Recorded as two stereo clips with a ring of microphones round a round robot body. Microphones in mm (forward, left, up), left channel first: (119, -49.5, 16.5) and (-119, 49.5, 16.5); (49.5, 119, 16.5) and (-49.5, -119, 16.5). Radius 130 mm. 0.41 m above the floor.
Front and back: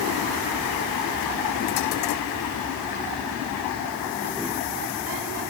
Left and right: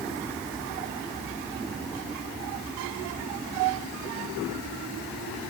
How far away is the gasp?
No gasp in this recording.